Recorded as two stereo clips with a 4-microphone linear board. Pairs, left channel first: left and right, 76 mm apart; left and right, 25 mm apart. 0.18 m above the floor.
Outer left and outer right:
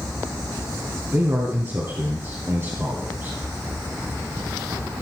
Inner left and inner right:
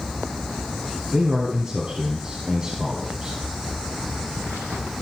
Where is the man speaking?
35° right (ahead or behind), 2 m.